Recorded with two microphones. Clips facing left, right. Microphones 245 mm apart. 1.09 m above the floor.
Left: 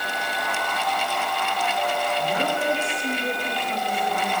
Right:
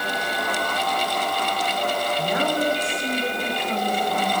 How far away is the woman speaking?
About 8 m.